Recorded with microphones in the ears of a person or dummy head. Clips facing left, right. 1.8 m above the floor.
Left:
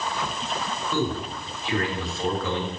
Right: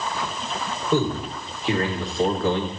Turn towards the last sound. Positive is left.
turn(degrees=-35)  # may be behind; listen again after turning